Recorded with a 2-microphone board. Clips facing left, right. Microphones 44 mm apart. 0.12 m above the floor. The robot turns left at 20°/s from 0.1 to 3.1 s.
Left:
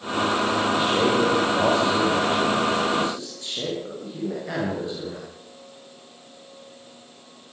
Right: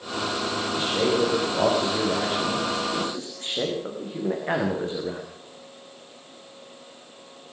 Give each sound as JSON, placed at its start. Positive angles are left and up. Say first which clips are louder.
{"t": 0.7, "sound": "a man speaking", "louder": "even", "azimuth_deg": 10, "distance_m": 9.0}